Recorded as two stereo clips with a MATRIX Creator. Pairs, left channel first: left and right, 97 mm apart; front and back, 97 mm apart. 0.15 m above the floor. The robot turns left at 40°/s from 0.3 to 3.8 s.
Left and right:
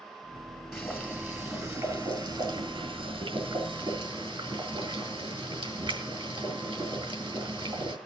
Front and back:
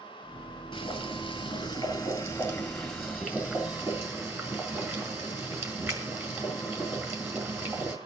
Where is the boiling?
Straight ahead, 3 m; by 8.0 s 120° right, 3 m.